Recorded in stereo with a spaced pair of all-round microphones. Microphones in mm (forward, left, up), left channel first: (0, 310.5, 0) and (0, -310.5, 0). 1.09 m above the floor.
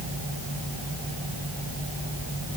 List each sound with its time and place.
Only background noise.